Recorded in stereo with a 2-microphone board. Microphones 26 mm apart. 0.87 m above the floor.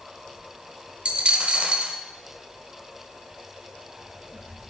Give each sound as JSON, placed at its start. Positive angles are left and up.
{"t": 1.1, "sound": "a dropped coin", "side_deg": -45, "distance_m": 0.7}